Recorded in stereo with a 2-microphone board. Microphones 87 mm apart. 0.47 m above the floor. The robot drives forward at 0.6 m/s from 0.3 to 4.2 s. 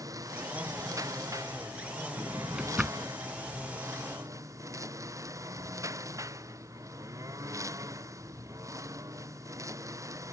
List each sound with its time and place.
0.0 s a lawn mower: 40° right (ahead or behind)
2.2 s a drawer: 15° right (ahead or behind); by 3.1 s 10° right (ahead or behind)